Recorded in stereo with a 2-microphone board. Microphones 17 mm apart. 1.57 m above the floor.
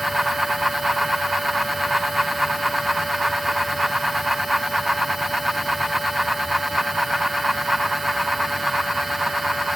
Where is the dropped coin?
No dropped coin in this recording.